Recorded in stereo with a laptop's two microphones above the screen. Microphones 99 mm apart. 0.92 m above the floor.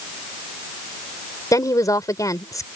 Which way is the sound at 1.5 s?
35° left (ahead or behind).